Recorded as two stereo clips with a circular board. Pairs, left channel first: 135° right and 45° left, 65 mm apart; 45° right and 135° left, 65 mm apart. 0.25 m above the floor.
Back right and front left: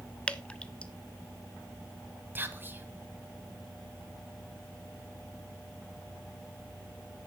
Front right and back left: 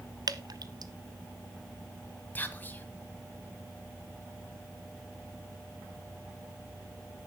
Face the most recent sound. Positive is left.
turn(degrees=0)